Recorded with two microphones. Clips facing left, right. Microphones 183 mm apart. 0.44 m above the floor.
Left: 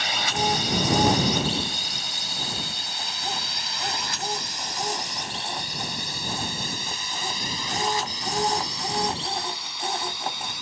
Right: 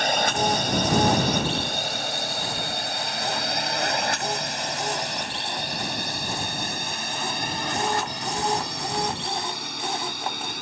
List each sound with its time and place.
0.0 s a drone: 50° right (ahead or behind); by 10.6 s 55° right (ahead or behind)